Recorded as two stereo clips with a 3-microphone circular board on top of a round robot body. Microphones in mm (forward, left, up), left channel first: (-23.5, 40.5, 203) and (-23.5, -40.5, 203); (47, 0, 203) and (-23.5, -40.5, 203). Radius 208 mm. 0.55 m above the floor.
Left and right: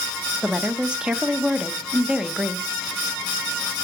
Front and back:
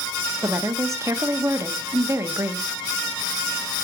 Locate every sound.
0.4 s a woman speaking: 160° right, 0.8 m